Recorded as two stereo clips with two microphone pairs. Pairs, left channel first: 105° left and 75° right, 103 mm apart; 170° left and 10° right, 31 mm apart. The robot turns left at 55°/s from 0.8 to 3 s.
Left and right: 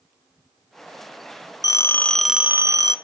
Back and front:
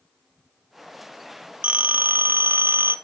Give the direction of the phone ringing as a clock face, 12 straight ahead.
10 o'clock.